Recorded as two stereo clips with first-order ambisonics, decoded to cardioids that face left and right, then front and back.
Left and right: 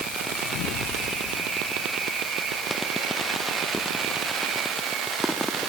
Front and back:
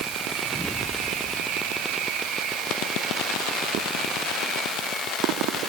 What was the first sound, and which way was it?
Only background noise.